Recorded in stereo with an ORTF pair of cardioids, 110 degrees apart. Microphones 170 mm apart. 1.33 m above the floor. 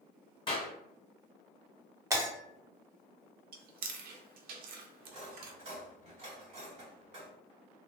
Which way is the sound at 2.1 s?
20° right.